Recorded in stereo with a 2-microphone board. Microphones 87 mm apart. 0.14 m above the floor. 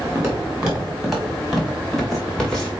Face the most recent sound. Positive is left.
turn(degrees=10)  # may be behind; listen again after turning